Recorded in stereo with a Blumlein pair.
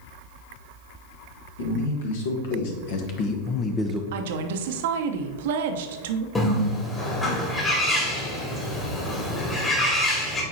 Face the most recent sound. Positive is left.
turn(degrees=15)